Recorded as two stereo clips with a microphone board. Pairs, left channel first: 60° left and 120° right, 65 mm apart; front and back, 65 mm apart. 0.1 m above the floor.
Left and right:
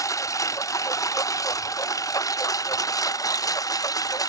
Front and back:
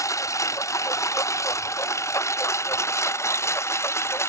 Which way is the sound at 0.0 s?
30° left.